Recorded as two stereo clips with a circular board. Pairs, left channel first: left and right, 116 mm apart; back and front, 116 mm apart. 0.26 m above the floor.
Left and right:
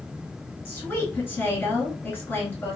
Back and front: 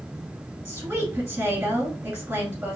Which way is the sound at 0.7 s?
50° left.